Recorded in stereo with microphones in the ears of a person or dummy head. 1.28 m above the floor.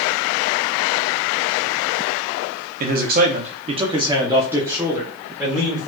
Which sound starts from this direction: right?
A man speaking, at 2.8 s.